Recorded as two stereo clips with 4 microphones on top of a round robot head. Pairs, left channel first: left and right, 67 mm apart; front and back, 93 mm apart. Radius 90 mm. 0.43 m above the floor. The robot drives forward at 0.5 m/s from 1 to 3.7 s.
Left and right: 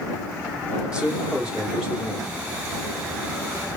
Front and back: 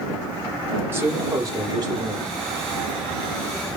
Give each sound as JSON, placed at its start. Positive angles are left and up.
{"t": 0.9, "sound": "a man speaking", "azimuth_deg": -145, "distance_m": 0.8}